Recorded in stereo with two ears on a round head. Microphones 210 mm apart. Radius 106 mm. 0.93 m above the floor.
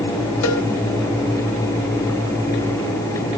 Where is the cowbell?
75° left (ahead or behind), 4.5 m.